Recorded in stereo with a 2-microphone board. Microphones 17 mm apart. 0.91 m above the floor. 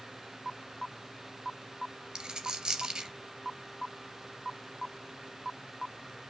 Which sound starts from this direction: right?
A dropped coin, at 2.1 s.